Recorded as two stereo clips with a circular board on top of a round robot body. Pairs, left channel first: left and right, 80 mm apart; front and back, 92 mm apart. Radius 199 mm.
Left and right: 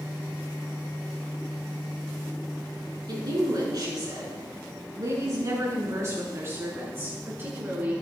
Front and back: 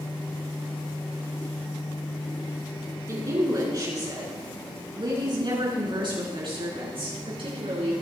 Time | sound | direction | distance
3.1 | a woman speaking | 130° right | 6.5 m